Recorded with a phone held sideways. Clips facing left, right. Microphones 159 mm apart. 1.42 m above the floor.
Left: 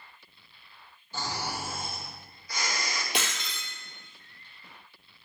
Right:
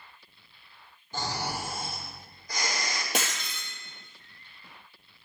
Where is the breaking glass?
45° right (ahead or behind), 2 m.